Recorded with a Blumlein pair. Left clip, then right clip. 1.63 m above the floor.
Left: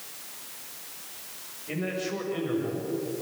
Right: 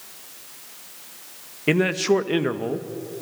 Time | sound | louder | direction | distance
1.7 | a man speaking | right 12 dB | 45° right | 1.7 m